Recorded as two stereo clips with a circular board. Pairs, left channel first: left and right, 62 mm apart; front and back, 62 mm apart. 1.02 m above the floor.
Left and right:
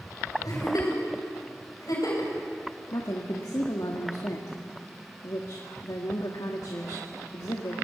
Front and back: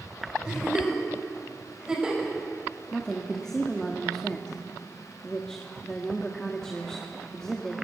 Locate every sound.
0.5 s a giggle: 105° left, 6.5 m
2.9 s a woman speaking: 80° left, 1.8 m